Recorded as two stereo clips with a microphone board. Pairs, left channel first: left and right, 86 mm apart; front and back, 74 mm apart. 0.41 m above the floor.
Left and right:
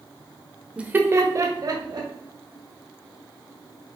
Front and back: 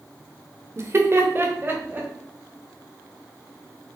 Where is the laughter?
160° right, 1.1 m; by 2.1 s 115° right, 2 m.